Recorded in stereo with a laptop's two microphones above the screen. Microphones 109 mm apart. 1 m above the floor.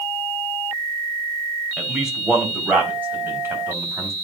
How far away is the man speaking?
About 4.5 m.